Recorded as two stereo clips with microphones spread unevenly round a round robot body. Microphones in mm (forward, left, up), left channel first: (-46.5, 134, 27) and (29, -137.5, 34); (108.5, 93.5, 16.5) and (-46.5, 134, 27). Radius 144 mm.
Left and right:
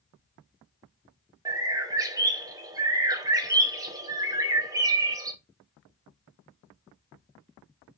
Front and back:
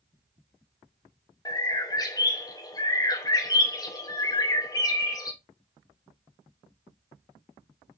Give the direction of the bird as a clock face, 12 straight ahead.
12 o'clock.